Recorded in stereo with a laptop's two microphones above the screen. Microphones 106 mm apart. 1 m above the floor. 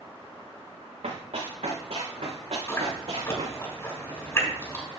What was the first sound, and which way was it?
Running footsteps, 75° right (ahead or behind).